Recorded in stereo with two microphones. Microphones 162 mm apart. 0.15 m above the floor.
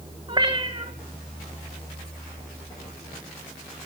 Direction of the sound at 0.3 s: 30° right (ahead or behind).